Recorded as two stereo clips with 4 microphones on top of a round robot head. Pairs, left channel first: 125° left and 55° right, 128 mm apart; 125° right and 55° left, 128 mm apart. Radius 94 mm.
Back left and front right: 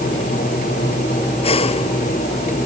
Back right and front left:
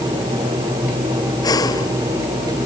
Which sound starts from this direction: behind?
Breathing, at 1.4 s.